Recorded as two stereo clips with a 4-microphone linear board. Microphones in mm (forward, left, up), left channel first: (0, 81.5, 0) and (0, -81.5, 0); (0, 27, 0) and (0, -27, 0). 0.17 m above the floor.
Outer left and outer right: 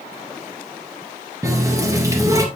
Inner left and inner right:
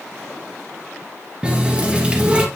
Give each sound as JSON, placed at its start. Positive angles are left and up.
{"t": 1.4, "sound": "a running tap", "side_deg": -20, "distance_m": 1.8}